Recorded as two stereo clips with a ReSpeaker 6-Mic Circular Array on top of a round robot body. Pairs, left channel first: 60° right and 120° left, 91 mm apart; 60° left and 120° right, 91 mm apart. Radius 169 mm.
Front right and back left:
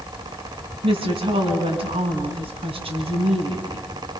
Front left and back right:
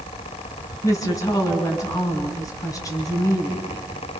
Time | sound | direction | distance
0.8 | a woman speaking | 115° left | 5 m